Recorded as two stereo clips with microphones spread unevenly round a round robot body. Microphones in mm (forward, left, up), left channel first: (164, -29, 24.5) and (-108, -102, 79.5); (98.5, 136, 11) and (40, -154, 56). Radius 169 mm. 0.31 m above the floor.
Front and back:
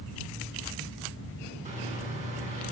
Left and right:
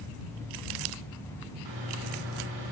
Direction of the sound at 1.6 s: 95° right.